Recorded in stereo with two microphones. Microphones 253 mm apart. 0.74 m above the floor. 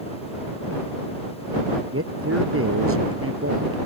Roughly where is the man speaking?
Right.